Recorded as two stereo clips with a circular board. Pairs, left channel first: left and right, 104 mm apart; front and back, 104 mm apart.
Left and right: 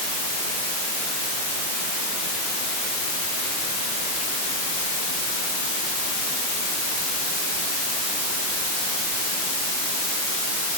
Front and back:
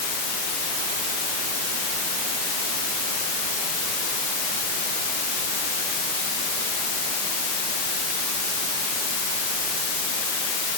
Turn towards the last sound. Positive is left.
No sound to turn to.